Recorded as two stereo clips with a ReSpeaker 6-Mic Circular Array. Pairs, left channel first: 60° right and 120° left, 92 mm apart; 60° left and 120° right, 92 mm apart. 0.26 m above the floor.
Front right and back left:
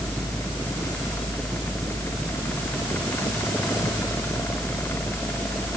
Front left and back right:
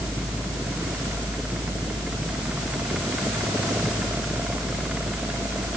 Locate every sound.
Only background noise.